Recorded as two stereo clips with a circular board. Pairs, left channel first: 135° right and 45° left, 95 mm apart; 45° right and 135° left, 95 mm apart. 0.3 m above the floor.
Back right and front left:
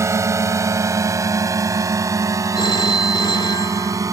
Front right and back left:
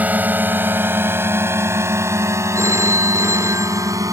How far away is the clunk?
I don't hear a clunk.